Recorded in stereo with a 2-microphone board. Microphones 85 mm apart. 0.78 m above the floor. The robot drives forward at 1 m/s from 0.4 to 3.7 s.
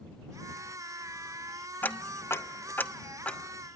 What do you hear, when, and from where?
1.8 s ticking: 25° left (ahead or behind), 0.7 m; by 3.4 s 15° left (ahead or behind), 1.2 m